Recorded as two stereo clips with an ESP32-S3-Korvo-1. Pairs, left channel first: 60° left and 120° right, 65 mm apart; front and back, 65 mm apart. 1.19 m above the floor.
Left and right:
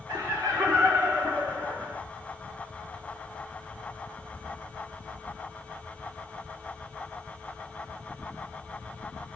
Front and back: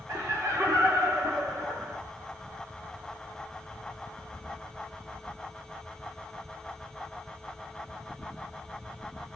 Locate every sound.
0.1 s laughter: 140° right, 0.7 m